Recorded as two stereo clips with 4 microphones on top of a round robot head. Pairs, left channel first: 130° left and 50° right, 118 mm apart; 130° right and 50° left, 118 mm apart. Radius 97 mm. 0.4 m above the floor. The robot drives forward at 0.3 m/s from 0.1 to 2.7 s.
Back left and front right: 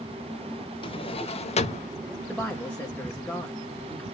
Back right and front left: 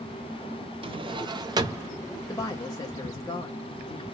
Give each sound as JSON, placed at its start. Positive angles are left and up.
{"t": 0.8, "sound": "a drawer", "azimuth_deg": 90, "distance_m": 0.9}
{"t": 2.3, "sound": "a woman speaking", "azimuth_deg": -150, "distance_m": 1.1}